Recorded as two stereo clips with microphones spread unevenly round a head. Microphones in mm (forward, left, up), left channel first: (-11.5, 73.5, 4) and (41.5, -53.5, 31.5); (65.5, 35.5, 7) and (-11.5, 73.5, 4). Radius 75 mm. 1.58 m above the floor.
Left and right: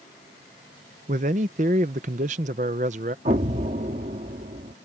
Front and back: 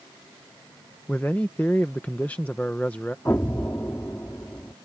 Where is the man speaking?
105° right.